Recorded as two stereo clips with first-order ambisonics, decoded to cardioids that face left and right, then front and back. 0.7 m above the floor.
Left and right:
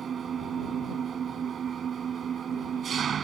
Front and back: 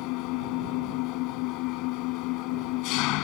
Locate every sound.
0.0 s an engine running: 25° right